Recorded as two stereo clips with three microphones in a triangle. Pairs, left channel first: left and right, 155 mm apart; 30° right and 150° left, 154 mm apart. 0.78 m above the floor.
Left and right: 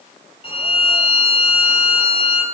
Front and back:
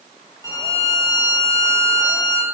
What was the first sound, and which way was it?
A violin, 35° left.